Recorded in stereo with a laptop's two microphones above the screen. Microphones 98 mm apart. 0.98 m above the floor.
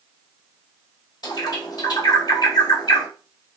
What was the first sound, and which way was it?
A bird, 45° left (ahead or behind).